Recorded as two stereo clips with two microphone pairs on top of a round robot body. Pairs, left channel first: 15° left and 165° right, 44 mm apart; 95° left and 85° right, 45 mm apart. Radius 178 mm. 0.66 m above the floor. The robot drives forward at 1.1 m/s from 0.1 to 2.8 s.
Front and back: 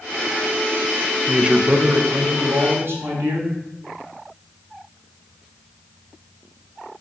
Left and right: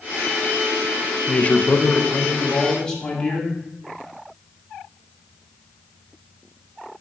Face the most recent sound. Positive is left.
turn(degrees=170)